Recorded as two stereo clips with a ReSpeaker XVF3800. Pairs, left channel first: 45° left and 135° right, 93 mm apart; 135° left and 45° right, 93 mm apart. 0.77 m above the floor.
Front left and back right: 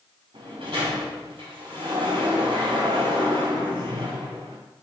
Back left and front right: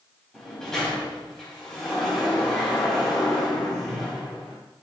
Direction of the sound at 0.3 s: 140° right.